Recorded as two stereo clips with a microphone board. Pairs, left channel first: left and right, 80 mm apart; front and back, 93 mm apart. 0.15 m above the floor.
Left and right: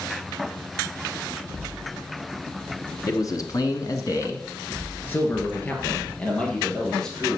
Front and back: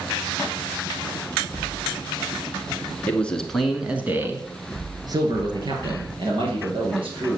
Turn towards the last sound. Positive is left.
turn(degrees=170)